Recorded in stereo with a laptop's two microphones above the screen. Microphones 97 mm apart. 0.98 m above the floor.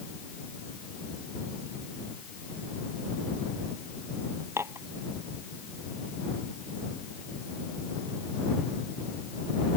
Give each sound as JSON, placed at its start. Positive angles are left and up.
{"t": 4.6, "sound": "dishes clattering", "side_deg": -25}